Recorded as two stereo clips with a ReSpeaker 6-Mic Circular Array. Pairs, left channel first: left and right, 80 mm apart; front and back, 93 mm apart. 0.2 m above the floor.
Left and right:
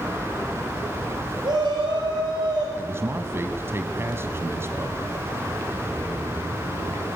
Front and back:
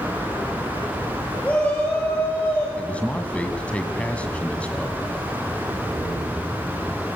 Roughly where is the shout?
Right.